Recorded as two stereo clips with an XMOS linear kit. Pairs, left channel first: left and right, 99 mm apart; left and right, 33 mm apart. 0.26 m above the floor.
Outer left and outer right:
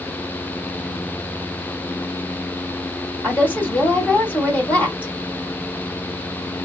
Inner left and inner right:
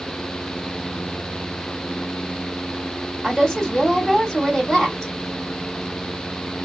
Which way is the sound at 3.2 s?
15° left (ahead or behind).